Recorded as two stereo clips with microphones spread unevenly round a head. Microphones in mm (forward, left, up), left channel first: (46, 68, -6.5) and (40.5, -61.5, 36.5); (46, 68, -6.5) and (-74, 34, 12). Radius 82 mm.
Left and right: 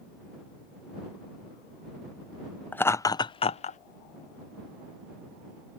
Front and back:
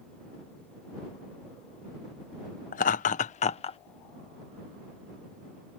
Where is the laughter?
Straight ahead; by 3.8 s 55° left.